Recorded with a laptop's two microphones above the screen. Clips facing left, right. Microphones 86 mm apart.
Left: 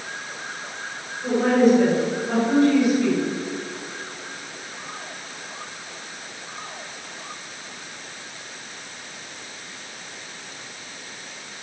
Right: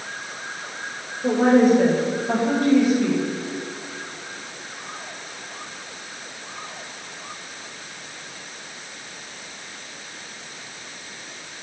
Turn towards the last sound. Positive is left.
turn(degrees=-20)  # may be behind; listen again after turning